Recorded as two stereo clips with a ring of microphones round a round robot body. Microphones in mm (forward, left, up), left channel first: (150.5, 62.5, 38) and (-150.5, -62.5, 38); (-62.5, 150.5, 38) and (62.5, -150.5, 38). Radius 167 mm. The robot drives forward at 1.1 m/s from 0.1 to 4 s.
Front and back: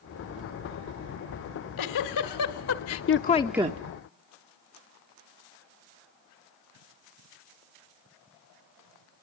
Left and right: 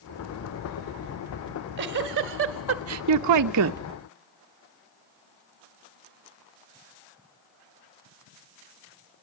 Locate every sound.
1.5 s a giggle: 10° right, 2.5 m; by 3.8 s 120° right, 0.5 m